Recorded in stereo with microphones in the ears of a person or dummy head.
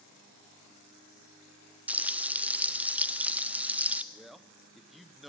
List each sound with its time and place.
1.9 s frying: 10° right (ahead or behind), 0.6 m
4.1 s a man speaking: 5° left (ahead or behind), 1.2 m